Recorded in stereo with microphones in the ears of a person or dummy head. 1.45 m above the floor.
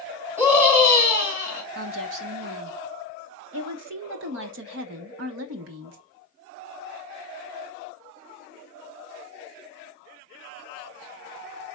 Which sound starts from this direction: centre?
A scream, at 0.4 s.